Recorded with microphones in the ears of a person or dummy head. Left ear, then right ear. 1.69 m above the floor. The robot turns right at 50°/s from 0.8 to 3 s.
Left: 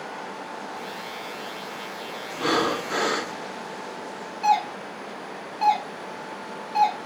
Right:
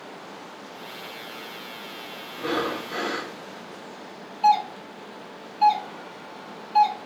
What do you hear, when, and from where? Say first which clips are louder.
2.3 s breathing: left 4 dB; 55° left, 0.5 m; by 3.3 s 90° left, 0.5 m
4.4 s a doorbell: right 2 dB; 10° left (ahead or behind), 1.1 m